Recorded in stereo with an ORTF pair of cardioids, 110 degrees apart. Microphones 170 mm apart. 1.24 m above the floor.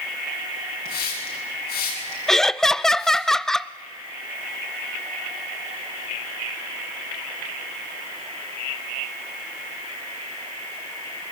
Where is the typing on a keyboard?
I don't hear typing on a keyboard.